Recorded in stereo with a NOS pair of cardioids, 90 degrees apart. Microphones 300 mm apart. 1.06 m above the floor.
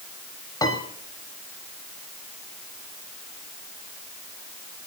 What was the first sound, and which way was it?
A piano, 15° left.